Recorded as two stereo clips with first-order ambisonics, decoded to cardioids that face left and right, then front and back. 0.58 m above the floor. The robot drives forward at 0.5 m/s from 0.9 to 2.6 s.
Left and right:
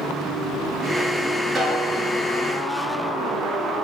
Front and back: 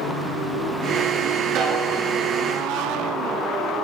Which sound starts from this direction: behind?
A snare drum, at 1.6 s.